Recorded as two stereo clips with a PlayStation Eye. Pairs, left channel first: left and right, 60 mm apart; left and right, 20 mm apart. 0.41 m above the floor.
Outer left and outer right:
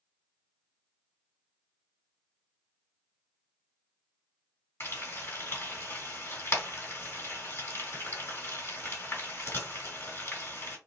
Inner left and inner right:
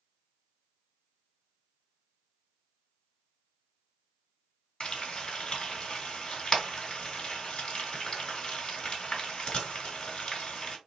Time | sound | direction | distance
4.8 | frying | 45° left (ahead or behind) | 2 m